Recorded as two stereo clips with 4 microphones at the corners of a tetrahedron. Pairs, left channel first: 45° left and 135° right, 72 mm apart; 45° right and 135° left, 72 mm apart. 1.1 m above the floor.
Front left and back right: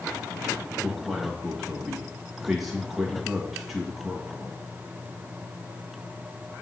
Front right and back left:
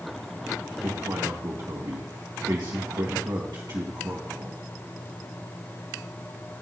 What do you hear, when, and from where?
0.8 s a man speaking: 140° left, 1.5 m